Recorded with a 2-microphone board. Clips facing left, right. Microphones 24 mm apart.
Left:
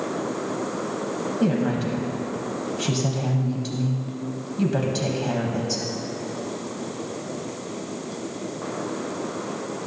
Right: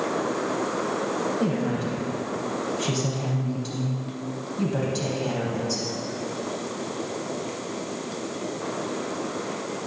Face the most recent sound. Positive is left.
turn(degrees=5)  # may be behind; listen again after turning